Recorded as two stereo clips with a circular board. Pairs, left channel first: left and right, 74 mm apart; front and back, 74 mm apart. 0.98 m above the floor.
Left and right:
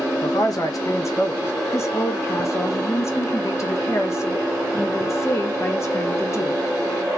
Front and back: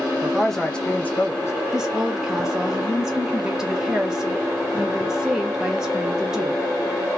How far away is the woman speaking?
About 0.9 m.